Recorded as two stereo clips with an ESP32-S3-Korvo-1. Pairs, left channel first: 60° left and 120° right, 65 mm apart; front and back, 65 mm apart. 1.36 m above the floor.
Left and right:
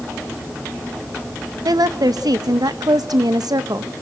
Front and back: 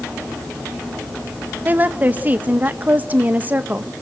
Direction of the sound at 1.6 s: 115° right.